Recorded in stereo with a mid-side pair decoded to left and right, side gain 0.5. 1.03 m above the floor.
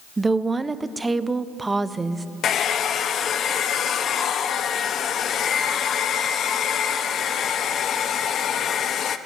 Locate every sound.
0.2 s a woman speaking: 20° right, 0.6 m
2.4 s a hair dryer: 55° left, 0.6 m